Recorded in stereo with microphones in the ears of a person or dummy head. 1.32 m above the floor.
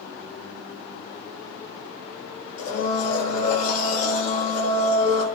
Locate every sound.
2.6 s a blender: 55° left (ahead or behind), 7 m